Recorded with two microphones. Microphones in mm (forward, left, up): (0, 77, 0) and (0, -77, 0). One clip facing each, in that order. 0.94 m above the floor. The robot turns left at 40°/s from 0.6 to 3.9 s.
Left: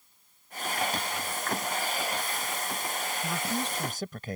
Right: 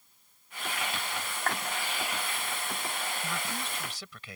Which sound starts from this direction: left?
A man speaking, at 3.2 s.